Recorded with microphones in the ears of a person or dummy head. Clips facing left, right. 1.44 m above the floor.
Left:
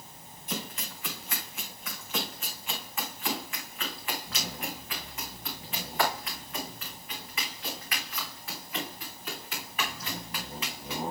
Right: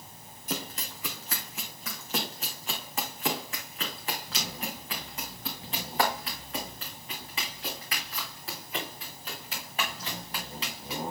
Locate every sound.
0.5 s running footsteps: 35° right (ahead or behind), 3 m; by 11.0 s 30° right (ahead or behind), 10 m